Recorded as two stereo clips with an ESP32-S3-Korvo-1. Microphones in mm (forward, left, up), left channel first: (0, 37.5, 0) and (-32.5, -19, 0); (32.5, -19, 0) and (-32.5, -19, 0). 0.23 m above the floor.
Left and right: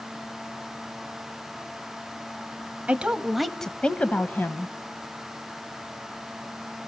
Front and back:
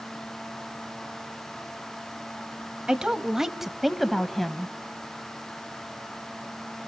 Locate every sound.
2.9 s a woman speaking: 130° right, 1.0 m; by 4.7 s 80° left, 1.2 m